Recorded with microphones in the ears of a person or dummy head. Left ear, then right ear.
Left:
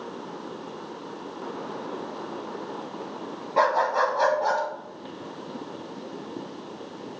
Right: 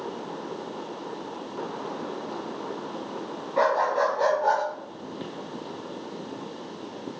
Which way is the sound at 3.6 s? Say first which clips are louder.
Left 1 dB; 30° left (ahead or behind).